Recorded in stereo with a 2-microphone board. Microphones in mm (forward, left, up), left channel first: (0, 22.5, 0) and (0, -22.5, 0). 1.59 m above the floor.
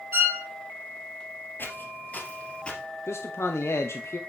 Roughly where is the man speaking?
Left.